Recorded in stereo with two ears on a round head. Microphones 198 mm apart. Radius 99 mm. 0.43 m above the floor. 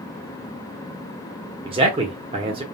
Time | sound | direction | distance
1.6 | a man speaking | 25° right (ahead or behind) | 1.1 m